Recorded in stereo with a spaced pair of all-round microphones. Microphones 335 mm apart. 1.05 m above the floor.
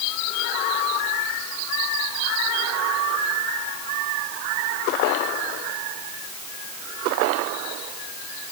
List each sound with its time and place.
Only background noise.